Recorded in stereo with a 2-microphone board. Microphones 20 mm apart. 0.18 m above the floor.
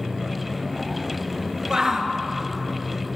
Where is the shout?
40° right (ahead or behind), 2.5 m.